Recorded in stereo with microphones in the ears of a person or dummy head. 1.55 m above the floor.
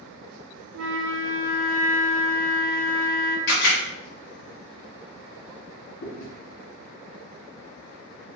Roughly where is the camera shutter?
Left.